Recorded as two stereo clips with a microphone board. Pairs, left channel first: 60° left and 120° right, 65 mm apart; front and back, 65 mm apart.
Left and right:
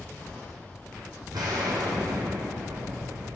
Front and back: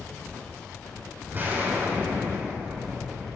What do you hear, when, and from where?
1.3 s an explosion: 120° right, 2.5 m